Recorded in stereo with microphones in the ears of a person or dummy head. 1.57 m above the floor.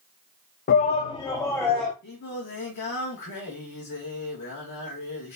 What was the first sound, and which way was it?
A shout, 45° left (ahead or behind).